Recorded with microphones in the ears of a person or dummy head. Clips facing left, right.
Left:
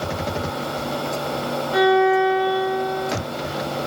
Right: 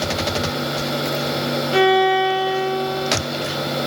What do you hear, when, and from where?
1.7 s a violin: 35° right (ahead or behind), 0.8 m